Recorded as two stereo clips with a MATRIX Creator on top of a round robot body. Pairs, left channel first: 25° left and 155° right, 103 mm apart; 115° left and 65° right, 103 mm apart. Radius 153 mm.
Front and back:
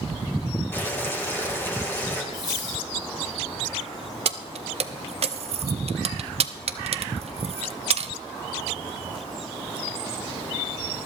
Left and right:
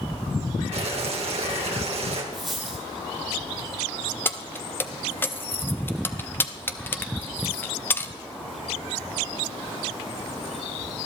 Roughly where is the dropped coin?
Ahead left.